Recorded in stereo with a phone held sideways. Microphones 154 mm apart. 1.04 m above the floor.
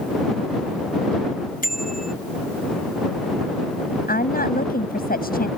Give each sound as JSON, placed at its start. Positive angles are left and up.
{"t": 1.6, "sound": "a bicycle bell", "side_deg": 70}
{"t": 4.1, "sound": "a woman speaking", "side_deg": 80}